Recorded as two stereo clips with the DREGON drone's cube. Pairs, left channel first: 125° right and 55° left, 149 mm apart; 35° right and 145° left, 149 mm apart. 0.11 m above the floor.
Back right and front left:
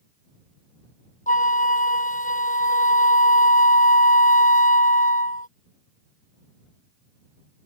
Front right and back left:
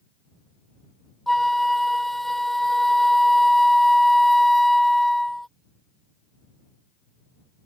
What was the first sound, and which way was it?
A flute, 125° right.